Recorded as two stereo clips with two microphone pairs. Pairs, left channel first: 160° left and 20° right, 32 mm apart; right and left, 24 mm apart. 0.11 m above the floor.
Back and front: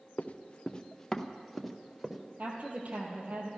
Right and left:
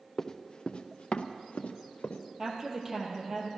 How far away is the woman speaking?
About 2.5 m.